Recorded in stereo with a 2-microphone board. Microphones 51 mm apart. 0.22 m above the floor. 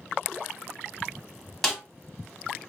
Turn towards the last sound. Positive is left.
turn(degrees=0)  # may be behind; listen again after turning